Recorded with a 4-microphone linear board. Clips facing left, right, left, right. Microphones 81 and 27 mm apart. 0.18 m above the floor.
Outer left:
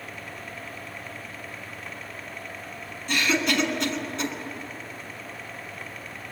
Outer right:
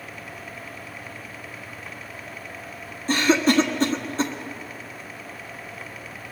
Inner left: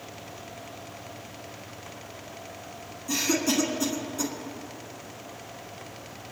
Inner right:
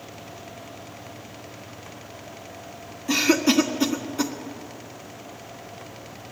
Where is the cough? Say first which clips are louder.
Outer right 6 dB, inner right 6 dB; 35° right (ahead or behind), 1.5 m.